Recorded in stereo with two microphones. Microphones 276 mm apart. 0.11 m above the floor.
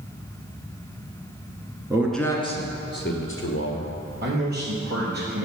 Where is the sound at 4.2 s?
35° right (ahead or behind), 3.5 m.